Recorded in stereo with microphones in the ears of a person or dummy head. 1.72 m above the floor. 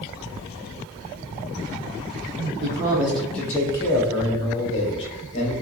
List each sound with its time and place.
2.6 s a man speaking: 20° right (ahead or behind), 0.6 m; by 5.5 s 40° left (ahead or behind), 1.6 m